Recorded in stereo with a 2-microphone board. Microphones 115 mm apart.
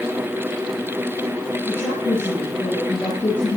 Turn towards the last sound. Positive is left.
turn(degrees=20)  # may be behind; listen again after turning